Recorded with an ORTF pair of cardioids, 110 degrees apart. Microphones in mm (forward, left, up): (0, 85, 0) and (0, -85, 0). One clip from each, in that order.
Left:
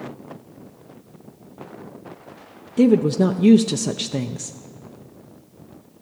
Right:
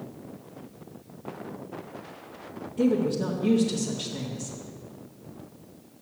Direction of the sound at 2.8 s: 65° left.